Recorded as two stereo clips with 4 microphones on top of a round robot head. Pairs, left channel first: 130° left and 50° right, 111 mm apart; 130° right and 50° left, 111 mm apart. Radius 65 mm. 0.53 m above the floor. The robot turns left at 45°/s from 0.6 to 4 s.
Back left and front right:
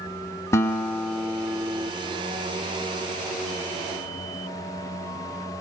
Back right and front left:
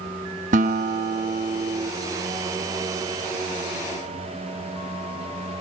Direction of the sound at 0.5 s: 65° left.